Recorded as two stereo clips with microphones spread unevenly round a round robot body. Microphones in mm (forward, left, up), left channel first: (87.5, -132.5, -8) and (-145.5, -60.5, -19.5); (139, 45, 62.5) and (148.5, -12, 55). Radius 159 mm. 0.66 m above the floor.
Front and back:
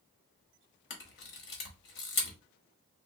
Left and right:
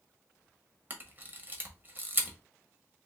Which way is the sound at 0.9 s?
40° right.